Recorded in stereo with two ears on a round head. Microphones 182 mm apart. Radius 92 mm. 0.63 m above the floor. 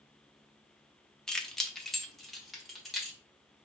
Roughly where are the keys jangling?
Centre.